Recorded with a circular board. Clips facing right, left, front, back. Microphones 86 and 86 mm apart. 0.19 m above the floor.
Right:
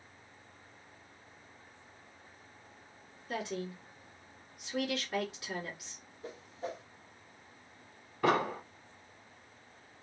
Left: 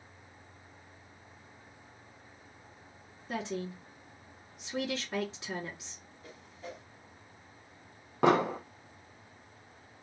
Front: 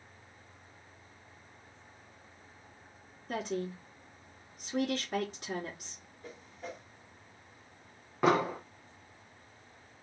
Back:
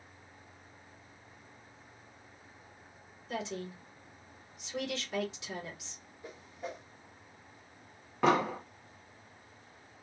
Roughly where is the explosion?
Left.